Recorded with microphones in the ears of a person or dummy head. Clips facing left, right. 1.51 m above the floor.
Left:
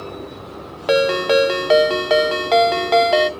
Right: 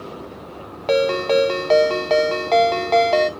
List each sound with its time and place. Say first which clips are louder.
0.9 s a ringtone: left 1 dB; 10° left (ahead or behind), 0.6 m